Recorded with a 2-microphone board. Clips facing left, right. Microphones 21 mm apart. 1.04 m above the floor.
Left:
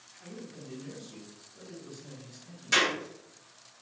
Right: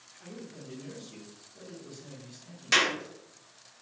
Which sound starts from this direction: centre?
A man speaking, at 0.2 s.